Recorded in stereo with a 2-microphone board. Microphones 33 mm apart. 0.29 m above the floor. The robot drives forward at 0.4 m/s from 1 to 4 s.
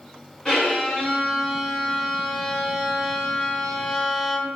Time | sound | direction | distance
0.5 | a violin | 15° left (ahead or behind) | 2 m